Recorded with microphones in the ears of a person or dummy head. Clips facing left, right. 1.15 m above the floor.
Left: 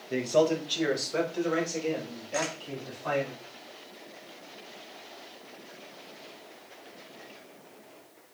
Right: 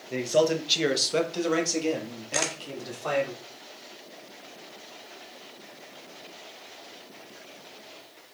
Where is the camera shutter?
45° right (ahead or behind), 0.8 m.